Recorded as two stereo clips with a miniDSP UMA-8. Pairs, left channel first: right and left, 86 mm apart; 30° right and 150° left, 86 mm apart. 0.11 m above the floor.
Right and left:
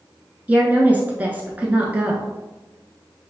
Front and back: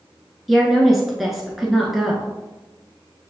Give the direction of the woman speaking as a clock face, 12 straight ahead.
10 o'clock.